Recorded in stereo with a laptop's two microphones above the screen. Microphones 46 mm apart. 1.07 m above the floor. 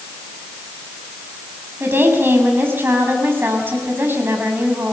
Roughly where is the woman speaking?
Right.